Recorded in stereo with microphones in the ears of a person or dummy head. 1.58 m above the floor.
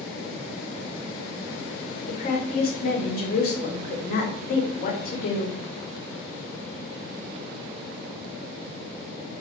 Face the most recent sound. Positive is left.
turn(degrees=45)  # may be behind; listen again after turning